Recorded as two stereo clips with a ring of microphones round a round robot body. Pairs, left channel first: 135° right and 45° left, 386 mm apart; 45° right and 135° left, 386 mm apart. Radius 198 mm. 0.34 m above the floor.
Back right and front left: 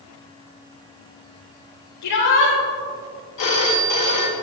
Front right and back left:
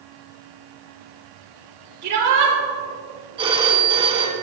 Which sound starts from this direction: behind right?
A phone ringing, at 3.4 s.